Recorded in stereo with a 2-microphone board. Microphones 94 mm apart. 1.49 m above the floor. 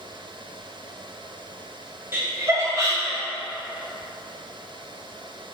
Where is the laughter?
20° right (ahead or behind), 1.0 m; by 3.2 s 40° right (ahead or behind), 2.5 m.